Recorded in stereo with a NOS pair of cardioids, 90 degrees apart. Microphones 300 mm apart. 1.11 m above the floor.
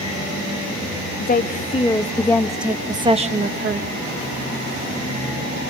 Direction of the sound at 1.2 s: 35° left.